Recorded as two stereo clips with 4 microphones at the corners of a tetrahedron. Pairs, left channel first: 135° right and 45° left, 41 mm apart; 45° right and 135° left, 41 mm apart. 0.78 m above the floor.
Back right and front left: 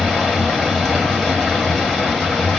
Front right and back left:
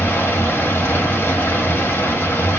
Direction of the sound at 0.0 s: 55° right.